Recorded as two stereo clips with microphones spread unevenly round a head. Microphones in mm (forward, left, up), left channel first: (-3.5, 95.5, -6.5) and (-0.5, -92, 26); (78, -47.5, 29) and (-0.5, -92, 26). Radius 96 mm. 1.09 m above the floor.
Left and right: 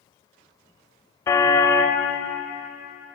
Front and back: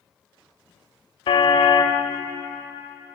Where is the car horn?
15° left, 2 m.